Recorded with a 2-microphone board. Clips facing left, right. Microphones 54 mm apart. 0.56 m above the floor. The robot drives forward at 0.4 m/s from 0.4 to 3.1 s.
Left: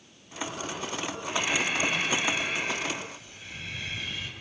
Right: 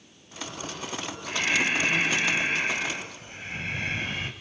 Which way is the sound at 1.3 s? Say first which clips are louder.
Right 3 dB; 30° right (ahead or behind).